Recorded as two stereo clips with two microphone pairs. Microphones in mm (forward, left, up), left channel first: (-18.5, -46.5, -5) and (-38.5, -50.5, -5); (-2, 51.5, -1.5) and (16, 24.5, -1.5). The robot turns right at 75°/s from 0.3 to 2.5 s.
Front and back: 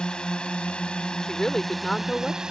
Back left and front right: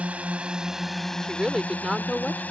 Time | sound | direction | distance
0.0 | a drone | 15° right | ?
1.2 | a woman speaking | 30° right | ?